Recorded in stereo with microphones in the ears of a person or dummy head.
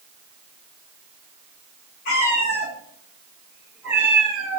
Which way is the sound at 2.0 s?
40° left (ahead or behind).